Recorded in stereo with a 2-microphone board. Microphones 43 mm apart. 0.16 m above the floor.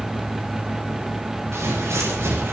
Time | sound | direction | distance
1.5 | footsteps | 90° right | 4.5 m